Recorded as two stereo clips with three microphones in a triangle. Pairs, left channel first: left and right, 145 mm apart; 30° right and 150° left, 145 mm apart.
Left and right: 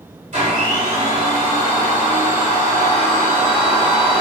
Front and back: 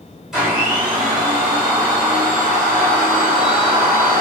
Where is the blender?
125° right, 1.5 m.